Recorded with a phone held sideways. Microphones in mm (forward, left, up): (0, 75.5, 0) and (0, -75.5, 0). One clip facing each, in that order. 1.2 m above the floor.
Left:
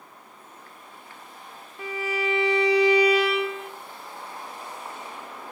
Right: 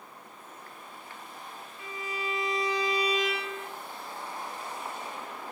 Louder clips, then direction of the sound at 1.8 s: Left 9 dB; 80° left.